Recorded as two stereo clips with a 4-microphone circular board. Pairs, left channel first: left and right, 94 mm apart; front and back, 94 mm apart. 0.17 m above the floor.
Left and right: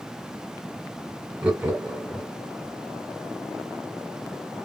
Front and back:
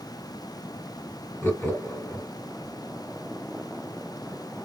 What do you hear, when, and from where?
1.4 s laughter: 35° right, 1.5 m